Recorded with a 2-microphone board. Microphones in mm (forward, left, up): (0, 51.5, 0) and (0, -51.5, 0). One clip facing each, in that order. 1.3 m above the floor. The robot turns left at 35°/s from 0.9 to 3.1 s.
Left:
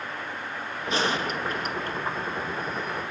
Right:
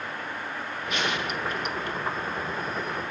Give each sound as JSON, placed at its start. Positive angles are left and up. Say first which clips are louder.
{"t": 0.9, "sound": "a gunshot", "louder": "left 3 dB", "azimuth_deg": 130, "distance_m": 0.7}